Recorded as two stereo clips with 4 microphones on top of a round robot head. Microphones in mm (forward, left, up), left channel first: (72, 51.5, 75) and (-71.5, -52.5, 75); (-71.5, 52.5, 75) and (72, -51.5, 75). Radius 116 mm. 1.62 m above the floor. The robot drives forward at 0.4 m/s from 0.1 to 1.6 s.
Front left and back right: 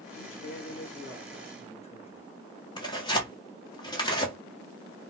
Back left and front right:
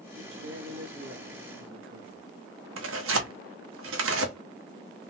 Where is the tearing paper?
30° right, 0.9 m.